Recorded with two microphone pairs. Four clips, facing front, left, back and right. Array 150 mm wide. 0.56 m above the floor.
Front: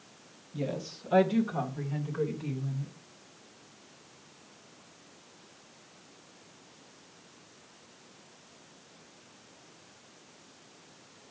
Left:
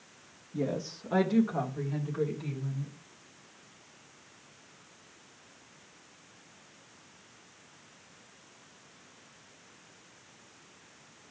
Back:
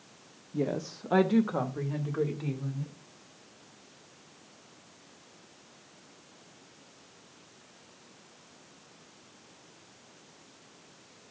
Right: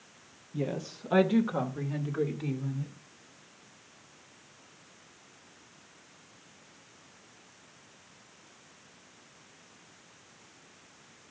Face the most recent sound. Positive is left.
turn(degrees=-150)